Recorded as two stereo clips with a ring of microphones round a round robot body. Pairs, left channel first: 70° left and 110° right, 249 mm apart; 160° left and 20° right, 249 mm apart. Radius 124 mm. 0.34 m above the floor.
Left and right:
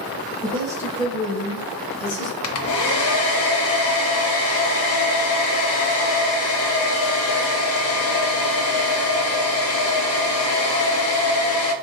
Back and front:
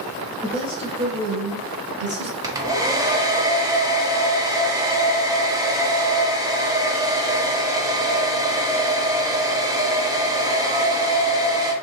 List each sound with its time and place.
0.4 s a woman speaking: 80° right, 1.0 m; by 2.3 s 35° left, 1.5 m
2.4 s a hair dryer: 50° left, 0.6 m